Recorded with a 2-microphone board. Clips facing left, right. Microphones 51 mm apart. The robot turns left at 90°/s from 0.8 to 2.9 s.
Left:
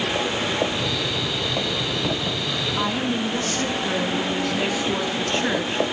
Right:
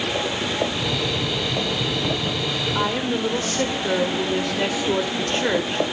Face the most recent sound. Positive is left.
turn(degrees=-60)  # may be behind; listen again after turning